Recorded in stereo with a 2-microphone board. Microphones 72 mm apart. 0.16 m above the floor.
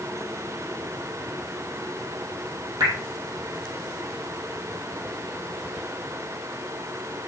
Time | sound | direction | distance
2.8 | dripping | 60° right (ahead or behind) | 3.5 m